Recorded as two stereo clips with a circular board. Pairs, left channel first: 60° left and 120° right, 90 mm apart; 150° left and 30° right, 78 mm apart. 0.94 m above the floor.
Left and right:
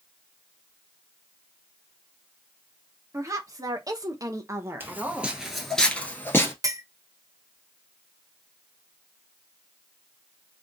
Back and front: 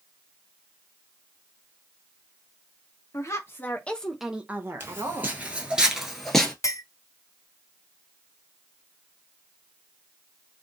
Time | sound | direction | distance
3.1 | a woman speaking | 170° right | 1.0 m
4.8 | footsteps | 65° right | 1.1 m
6.6 | a clink | 170° right | 0.5 m